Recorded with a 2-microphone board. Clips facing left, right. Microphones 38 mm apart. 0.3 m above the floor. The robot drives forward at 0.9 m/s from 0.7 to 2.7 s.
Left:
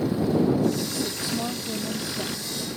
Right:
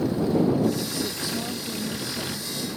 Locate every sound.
0.9 s a woman speaking: 25° left (ahead or behind); by 2.7 s 30° left (ahead or behind)